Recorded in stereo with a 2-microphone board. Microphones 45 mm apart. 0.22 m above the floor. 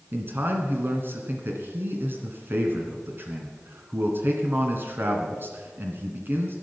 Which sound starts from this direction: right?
A man speaking, at 0.1 s.